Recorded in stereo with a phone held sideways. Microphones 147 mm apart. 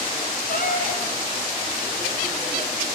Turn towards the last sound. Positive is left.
turn(degrees=65)  # may be behind; listen again after turning